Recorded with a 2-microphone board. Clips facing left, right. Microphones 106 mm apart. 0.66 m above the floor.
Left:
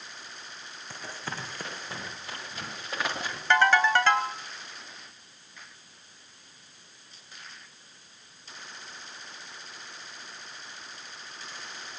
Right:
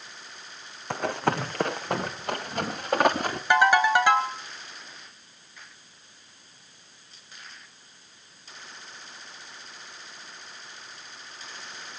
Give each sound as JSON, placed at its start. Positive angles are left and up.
{"t": 0.9, "sound": "running footsteps", "side_deg": -65, "distance_m": 1.7}
{"t": 3.5, "sound": "a ringtone", "side_deg": -15, "distance_m": 3.0}